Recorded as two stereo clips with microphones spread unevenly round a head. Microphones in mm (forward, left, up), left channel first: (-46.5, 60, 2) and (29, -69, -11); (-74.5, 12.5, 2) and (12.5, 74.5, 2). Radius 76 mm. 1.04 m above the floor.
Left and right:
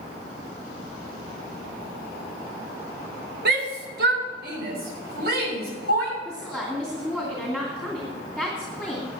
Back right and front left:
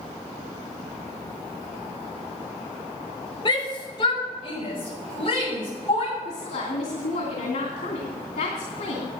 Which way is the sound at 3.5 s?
80° right.